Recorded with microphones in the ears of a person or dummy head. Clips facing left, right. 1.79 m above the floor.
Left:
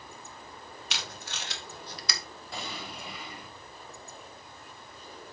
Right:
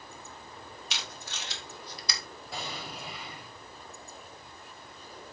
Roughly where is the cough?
No cough in this recording.